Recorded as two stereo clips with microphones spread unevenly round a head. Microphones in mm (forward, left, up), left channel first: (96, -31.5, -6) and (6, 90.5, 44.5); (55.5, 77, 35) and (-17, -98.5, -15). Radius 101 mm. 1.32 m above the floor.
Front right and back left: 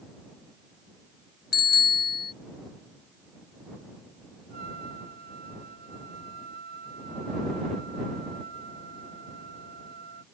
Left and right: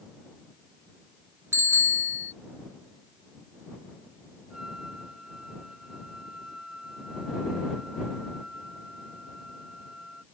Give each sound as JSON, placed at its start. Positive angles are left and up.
{"t": 1.5, "sound": "a bicycle bell", "azimuth_deg": -30}
{"t": 4.5, "sound": "a trumpet", "azimuth_deg": 155}